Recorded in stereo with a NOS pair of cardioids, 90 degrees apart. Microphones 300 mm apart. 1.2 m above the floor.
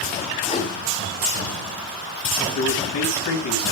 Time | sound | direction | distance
0.4 | a whoosh | 25° left | 3.5 m
2.5 | a man speaking | 65° left | 6.5 m